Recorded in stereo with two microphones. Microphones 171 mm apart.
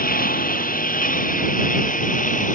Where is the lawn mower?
55° left (ahead or behind); by 2.5 s 50° left (ahead or behind).